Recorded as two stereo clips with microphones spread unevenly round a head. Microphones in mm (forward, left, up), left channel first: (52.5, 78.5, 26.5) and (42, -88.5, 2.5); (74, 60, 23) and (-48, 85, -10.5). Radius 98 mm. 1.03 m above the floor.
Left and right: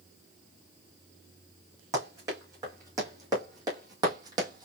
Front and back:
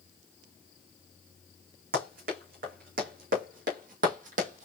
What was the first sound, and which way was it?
Running footsteps, 170° right.